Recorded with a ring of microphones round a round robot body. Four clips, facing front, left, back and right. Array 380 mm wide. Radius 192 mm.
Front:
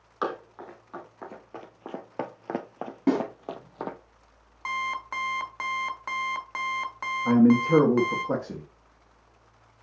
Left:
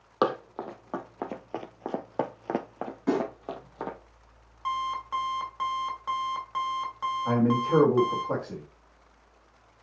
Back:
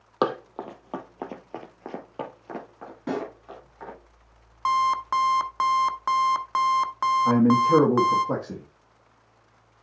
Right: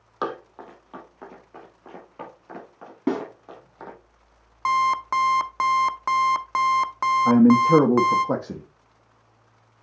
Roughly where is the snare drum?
Ahead right.